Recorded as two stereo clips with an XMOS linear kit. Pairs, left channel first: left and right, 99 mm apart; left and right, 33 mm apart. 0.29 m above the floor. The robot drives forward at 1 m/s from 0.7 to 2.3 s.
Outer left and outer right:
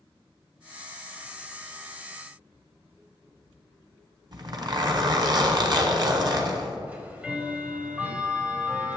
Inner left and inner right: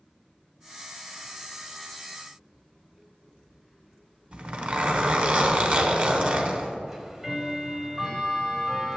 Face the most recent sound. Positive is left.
turn(degrees=-15)  # may be behind; listen again after turning